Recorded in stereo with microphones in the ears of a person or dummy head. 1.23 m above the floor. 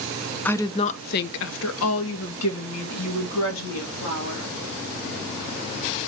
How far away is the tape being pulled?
I don't hear tape being pulled.